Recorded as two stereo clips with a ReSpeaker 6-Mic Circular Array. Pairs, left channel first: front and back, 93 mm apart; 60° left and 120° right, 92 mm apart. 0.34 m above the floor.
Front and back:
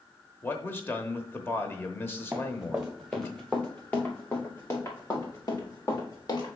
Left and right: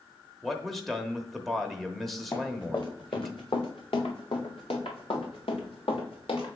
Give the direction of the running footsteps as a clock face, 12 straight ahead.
8 o'clock.